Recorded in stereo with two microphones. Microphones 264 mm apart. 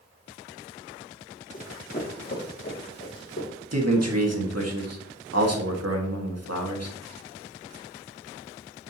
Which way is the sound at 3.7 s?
70° right (ahead or behind).